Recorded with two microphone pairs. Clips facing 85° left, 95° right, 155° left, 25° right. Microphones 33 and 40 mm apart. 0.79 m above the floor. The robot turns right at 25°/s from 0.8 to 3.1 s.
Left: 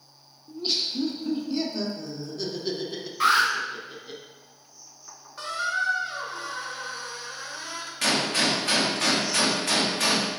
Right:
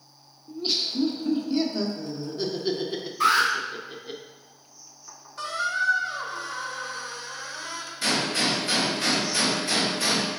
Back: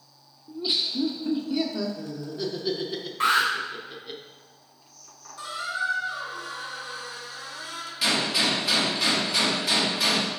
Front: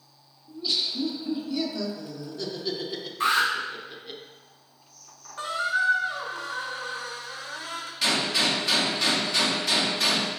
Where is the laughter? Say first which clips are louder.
Right 1 dB, back 1 dB; 165° right, 0.5 m; by 4.2 s 105° right, 0.5 m.